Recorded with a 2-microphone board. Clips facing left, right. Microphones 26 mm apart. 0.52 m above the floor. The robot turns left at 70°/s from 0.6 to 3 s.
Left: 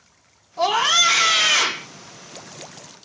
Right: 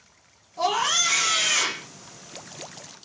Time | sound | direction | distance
0.6 | a scream | 135° left | 0.7 m